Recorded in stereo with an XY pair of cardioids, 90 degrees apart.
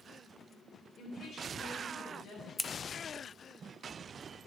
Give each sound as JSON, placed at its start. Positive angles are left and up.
{"t": 1.0, "sound": "a woman speaking", "azimuth_deg": 60, "distance_m": 4.0}
{"t": 2.6, "sound": "scissors", "azimuth_deg": 25, "distance_m": 0.5}